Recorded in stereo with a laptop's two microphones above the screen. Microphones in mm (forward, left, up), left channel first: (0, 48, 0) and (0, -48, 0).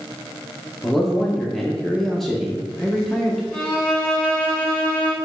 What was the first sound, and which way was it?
A man speaking, 5° left (ahead or behind).